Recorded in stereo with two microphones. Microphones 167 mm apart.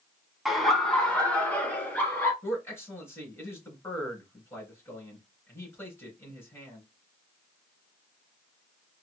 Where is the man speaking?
15° left (ahead or behind), 2.5 m.